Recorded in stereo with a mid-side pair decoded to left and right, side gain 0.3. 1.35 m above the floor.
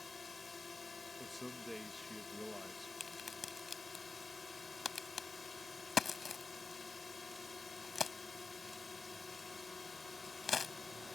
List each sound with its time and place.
0.0 s a drone: 45° left
1.2 s a man speaking: 10° left
3.0 s a crack: 60° left